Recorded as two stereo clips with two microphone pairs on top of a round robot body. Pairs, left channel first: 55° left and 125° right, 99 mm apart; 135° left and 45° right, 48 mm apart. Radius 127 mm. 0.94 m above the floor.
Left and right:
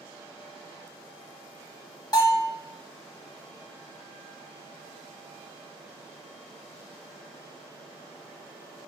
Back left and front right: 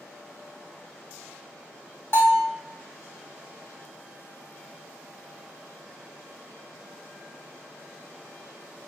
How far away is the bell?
About 1.3 m.